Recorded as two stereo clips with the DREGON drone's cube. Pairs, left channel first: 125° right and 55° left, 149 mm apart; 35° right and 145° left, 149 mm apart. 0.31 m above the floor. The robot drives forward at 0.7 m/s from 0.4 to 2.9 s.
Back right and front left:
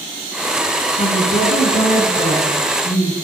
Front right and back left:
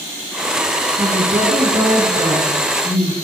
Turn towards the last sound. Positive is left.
turn(degrees=-155)